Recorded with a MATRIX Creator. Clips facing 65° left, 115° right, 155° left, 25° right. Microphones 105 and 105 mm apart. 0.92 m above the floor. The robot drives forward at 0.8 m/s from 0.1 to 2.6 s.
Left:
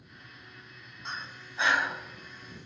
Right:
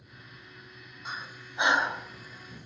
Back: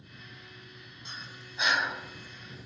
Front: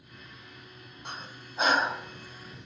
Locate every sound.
1.1 s breathing: 30° right, 1.3 m; by 2.7 s 115° right, 0.9 m